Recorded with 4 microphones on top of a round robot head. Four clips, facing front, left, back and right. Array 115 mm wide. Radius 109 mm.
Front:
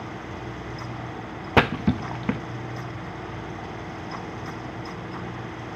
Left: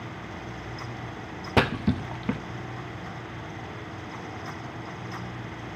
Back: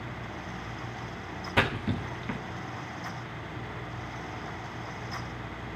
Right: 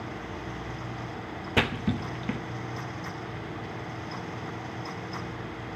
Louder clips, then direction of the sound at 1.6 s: Left 4 dB, front 8 dB; 15° left.